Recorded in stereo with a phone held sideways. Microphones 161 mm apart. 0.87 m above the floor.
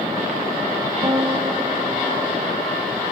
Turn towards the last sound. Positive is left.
turn(degrees=-30)  # may be behind; listen again after turning